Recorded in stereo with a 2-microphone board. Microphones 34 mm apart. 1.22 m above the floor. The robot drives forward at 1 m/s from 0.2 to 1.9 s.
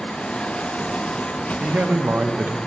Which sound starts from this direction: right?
A man speaking, at 1.6 s.